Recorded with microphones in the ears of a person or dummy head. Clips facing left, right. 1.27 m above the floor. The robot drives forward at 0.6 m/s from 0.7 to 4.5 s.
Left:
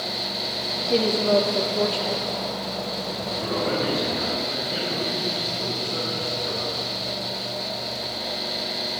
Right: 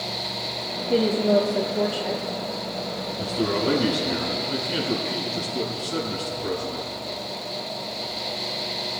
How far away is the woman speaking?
About 0.7 m.